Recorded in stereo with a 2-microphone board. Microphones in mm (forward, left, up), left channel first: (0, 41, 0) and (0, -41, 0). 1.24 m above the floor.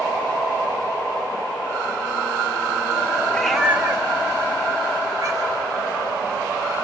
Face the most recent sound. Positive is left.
turn(degrees=-40)  # may be behind; listen again after turning